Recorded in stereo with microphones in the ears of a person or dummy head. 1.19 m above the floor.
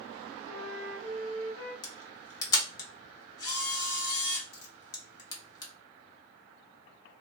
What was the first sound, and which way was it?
A flute, 40° left (ahead or behind).